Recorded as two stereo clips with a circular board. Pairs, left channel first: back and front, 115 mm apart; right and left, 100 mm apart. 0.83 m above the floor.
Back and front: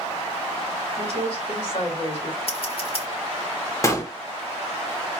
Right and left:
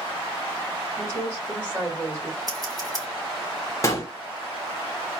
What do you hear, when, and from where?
1.0 s a woman speaking: 155° left, 3.5 m
2.5 s scissors: 145° left, 2.5 m
3.8 s a gunshot: 130° right, 1.2 m